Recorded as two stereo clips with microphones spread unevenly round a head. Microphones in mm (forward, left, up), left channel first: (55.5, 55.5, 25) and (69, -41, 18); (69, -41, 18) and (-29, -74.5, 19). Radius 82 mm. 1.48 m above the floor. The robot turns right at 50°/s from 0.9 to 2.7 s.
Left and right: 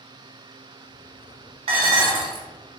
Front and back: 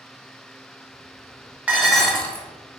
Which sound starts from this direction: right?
Dishes clattering, at 1.7 s.